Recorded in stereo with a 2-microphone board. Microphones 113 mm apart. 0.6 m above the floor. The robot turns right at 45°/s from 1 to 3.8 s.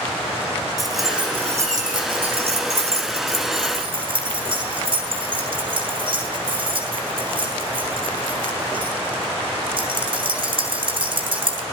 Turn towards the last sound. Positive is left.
turn(degrees=-50)  # may be behind; listen again after turning